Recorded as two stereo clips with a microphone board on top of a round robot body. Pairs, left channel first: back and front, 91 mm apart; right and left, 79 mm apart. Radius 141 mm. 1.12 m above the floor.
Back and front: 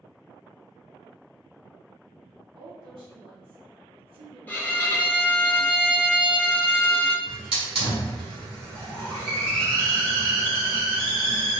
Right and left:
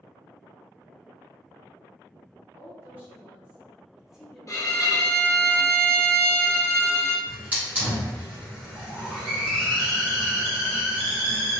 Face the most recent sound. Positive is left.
turn(degrees=20)